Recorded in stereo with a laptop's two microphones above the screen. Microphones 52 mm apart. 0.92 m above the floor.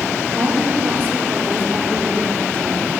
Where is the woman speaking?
40° right (ahead or behind), 2.5 m.